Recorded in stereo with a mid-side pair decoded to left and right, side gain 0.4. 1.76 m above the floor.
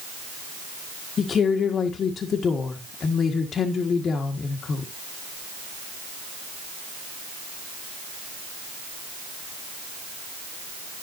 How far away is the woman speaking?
About 1.7 m.